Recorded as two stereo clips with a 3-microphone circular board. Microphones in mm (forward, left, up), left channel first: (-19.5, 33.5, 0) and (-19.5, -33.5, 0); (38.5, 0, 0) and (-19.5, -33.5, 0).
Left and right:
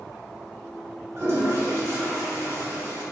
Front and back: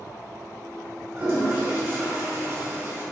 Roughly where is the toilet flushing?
Right.